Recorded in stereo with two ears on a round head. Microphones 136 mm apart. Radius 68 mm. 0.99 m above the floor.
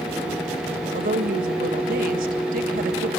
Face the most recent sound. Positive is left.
turn(degrees=-60)  # may be behind; listen again after turning